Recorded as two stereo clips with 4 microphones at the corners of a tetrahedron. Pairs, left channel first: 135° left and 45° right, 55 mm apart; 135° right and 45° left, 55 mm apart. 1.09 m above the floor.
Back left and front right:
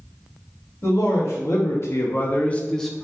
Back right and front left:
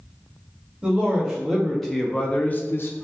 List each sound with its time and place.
0.8 s a man speaking: 125° left, 1.2 m; by 3.0 s 130° right, 0.5 m